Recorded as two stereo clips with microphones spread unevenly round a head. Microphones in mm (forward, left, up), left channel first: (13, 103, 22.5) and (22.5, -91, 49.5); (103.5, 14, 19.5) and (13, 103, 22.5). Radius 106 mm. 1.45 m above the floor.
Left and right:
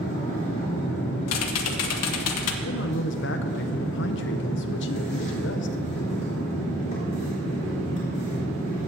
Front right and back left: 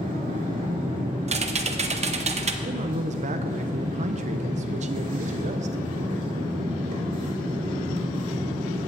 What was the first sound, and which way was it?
A machine running, 150° left.